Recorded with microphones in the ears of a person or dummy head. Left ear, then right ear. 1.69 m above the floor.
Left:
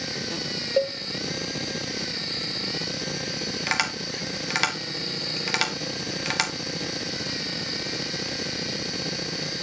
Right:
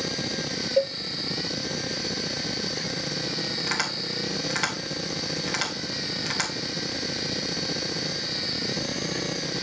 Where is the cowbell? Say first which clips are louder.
Even; 25° left (ahead or behind), 0.7 m.